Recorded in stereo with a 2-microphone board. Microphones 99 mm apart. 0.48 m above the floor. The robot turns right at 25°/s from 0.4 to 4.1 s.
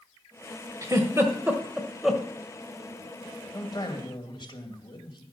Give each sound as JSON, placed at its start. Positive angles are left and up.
{"t": 0.8, "sound": "a giggle", "side_deg": -35, "distance_m": 1.5}
{"t": 3.5, "sound": "a man speaking", "side_deg": 35, "distance_m": 2.5}